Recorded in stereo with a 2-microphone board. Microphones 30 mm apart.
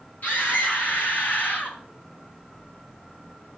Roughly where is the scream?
Left.